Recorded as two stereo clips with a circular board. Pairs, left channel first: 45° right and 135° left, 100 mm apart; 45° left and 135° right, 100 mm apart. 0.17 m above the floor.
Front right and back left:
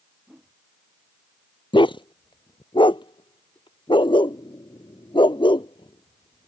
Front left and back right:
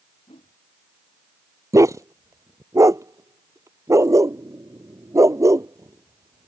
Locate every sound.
0.3 s a whoosh: 50° left
1.7 s a dog barking: 80° right